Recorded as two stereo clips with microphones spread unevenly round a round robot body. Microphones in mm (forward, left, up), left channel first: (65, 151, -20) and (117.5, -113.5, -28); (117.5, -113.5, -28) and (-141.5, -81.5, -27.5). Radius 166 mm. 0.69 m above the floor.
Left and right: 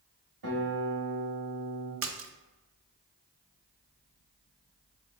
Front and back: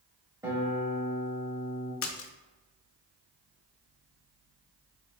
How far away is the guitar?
About 1.8 m.